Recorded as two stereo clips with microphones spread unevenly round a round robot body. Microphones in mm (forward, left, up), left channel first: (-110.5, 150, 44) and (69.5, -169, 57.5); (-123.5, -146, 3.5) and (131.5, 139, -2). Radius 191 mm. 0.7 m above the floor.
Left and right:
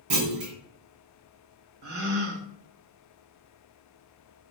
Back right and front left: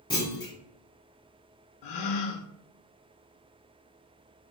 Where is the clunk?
50° right, 1.4 m.